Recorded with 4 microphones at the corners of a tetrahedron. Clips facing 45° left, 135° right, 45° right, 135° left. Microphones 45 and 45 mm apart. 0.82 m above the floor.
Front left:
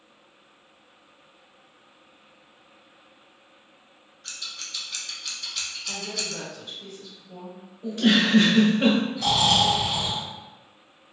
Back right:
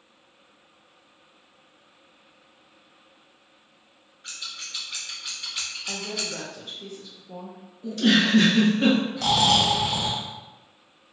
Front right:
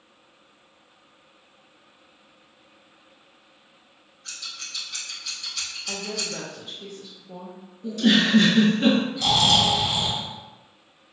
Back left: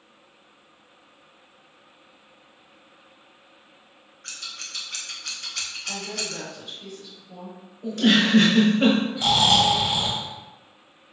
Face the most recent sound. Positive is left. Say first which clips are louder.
# back right 1 dB, back left 1 dB
turn(degrees=-160)